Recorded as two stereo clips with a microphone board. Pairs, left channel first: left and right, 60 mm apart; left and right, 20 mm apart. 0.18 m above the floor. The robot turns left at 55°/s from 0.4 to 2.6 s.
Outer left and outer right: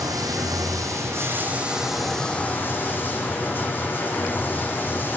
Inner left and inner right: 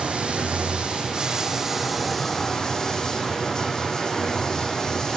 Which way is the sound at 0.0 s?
95° right.